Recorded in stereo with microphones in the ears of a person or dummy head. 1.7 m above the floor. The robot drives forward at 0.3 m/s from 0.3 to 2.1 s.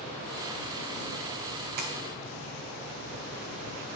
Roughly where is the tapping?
Right.